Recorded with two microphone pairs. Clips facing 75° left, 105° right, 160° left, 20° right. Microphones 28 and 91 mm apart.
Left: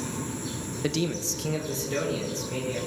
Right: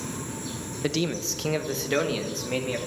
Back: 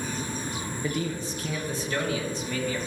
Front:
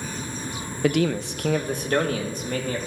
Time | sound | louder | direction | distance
0.8 | a man speaking | right 1 dB, front 10 dB | 25° right | 0.7 m